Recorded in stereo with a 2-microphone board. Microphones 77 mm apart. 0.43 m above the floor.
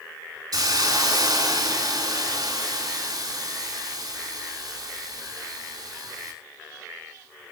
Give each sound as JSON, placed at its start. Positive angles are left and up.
{"t": 0.5, "sound": "a hiss", "side_deg": -60, "distance_m": 4.5}